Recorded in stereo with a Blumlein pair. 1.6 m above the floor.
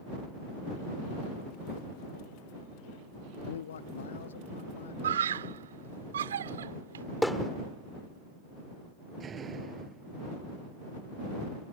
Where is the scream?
65° right.